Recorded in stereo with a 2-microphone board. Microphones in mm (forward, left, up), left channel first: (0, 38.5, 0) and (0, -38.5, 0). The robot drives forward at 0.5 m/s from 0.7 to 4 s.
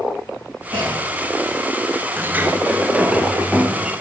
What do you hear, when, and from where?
0.7 s a clunk: 75° right (ahead or behind), 4.5 m; by 1.5 s 80° right, 4.5 m
2.2 s a sliding door: 30° right (ahead or behind), 0.5 m; by 3.9 s 10° right (ahead or behind), 1.2 m